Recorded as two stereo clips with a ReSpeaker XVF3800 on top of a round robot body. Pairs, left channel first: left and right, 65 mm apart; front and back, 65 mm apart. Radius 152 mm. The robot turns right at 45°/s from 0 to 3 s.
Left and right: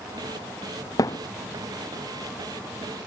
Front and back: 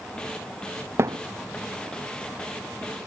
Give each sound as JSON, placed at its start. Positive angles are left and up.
{"t": 1.0, "sound": "a thud", "azimuth_deg": 125}